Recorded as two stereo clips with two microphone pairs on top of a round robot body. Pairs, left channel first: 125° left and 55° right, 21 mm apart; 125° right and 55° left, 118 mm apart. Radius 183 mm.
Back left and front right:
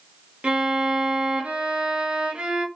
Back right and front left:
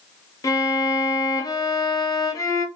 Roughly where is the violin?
Ahead right.